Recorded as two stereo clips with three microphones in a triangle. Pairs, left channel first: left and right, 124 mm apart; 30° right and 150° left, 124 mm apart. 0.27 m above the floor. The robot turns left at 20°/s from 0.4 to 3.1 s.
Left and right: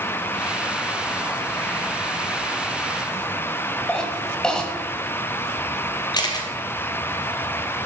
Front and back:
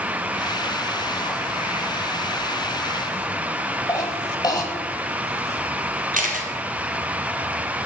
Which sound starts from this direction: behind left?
A camera shutter, at 6.1 s.